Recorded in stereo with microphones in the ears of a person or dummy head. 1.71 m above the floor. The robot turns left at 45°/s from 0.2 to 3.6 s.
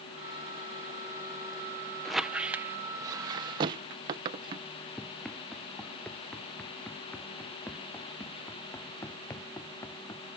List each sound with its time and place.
2.0 s a squeak: centre (ahead or behind); by 4.7 s 25° right (ahead or behind)
5.0 s running footsteps: centre (ahead or behind); by 10.2 s 20° left (ahead or behind)